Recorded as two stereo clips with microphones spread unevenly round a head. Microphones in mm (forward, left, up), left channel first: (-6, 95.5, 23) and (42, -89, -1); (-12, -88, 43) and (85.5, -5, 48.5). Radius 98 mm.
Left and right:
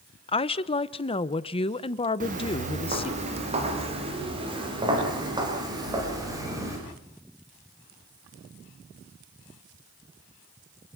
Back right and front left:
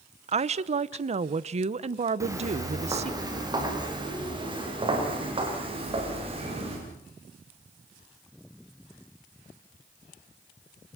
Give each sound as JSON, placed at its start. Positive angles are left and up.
{"t": 0.3, "sound": "a woman speaking", "azimuth_deg": 45, "distance_m": 0.8}
{"t": 2.2, "sound": "footsteps", "azimuth_deg": -25, "distance_m": 6.0}